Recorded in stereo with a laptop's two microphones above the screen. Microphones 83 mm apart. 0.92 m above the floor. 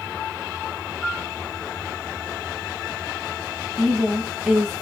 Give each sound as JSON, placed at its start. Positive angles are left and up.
{"t": 1.0, "sound": "a piano", "side_deg": 15, "distance_m": 0.6}
{"t": 3.8, "sound": "a woman speaking", "side_deg": -20, "distance_m": 1.1}